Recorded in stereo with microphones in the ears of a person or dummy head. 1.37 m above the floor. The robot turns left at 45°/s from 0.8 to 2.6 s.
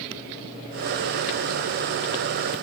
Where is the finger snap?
I don't hear a finger snap.